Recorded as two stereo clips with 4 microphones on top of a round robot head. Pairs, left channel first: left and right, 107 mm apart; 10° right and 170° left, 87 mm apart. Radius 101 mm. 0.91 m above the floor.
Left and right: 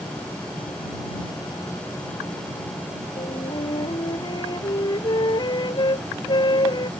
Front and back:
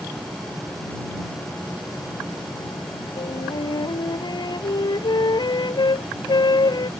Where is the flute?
35° left.